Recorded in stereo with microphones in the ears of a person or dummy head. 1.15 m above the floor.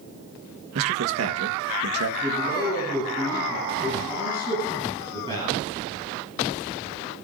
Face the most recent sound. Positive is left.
turn(degrees=-20)  # may be behind; listen again after turning